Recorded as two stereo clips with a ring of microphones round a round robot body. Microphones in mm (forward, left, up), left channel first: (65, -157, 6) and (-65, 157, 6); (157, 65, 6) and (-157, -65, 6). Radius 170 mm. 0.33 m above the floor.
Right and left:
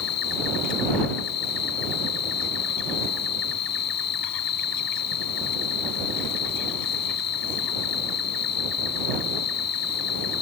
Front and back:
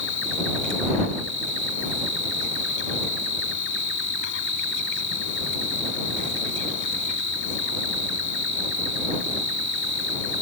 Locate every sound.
0.0 s an insect: 35° right